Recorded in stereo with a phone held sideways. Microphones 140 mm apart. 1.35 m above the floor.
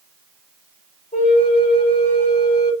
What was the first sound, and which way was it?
A flute, 75° left (ahead or behind).